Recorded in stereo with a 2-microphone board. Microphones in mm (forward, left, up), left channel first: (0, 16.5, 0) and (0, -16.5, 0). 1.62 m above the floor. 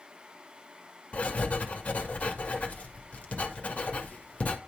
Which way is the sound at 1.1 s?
40° left (ahead or behind).